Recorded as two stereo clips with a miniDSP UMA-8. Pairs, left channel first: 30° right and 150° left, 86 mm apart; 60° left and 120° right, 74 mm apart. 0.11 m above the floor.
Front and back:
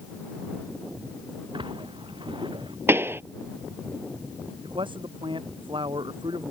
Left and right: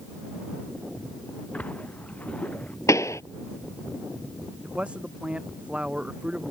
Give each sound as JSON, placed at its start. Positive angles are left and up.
{"t": 1.5, "sound": "a splash", "azimuth_deg": 130}
{"t": 2.9, "sound": "a pop", "azimuth_deg": 95}
{"t": 4.6, "sound": "a man speaking", "azimuth_deg": 165}